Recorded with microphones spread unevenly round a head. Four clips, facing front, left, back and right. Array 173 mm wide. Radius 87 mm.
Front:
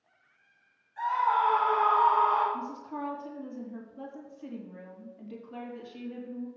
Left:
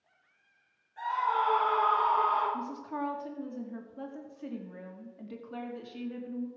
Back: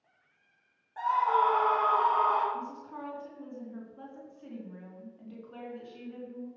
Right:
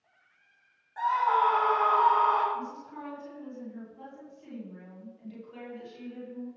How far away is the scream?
About 4 m.